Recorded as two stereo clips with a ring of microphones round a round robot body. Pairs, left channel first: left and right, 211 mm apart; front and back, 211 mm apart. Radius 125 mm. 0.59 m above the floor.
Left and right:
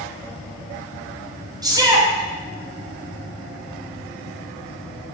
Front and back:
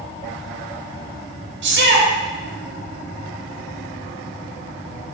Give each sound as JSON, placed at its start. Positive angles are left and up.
{"t": 1.6, "sound": "a shout", "azimuth_deg": -160, "distance_m": 3.5}